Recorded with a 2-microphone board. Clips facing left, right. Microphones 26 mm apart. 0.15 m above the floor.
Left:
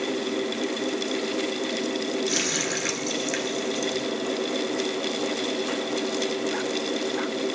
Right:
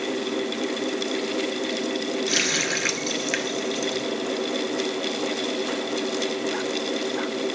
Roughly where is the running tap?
Right.